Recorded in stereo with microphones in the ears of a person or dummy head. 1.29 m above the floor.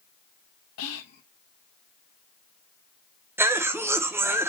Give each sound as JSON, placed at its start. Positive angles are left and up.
{"t": 0.8, "sound": "whispering", "side_deg": 75, "distance_m": 1.0}
{"t": 3.4, "sound": "a cough", "side_deg": -10, "distance_m": 0.5}